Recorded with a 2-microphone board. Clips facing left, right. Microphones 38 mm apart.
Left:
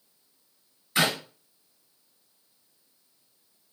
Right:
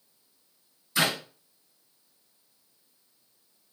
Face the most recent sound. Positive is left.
turn(degrees=45)  # may be behind; listen again after turning